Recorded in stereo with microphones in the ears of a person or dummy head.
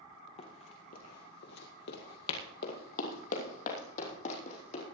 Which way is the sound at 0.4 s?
35° left (ahead or behind).